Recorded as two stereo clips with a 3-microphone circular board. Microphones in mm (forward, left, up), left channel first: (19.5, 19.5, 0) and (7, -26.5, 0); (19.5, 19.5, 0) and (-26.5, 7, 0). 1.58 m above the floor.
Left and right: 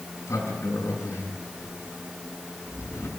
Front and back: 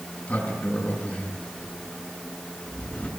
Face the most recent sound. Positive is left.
turn(degrees=80)